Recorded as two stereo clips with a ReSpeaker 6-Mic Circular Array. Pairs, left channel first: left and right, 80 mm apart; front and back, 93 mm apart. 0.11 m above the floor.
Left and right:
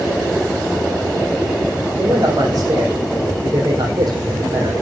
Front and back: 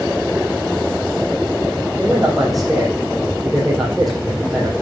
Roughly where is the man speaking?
Right.